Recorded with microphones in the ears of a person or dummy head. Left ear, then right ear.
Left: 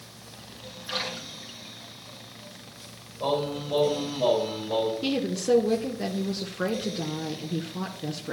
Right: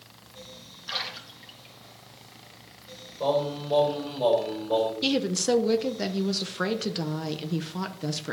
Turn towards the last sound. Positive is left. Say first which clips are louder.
# right 1 dB
turn(degrees=-30)  # may be behind; listen again after turning